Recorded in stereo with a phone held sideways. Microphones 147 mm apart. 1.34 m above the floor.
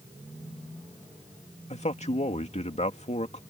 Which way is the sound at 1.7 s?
50° left (ahead or behind).